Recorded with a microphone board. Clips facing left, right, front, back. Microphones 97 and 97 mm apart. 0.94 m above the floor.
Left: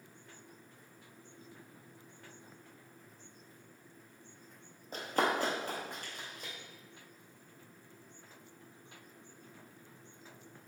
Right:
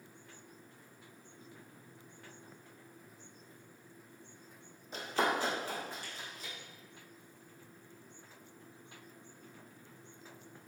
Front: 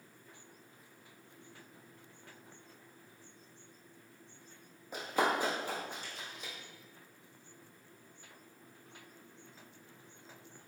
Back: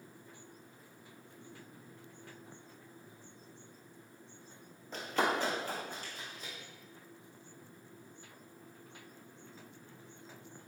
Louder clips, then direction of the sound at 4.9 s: Left 1 dB, front 1 dB; 75° left.